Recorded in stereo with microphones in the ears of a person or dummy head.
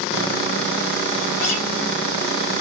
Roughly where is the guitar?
Left.